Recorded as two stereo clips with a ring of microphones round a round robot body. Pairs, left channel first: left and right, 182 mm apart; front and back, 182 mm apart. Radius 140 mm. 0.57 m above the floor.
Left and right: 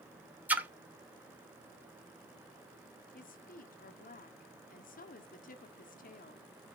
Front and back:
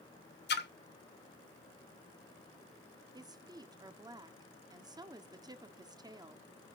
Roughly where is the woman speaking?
Behind left.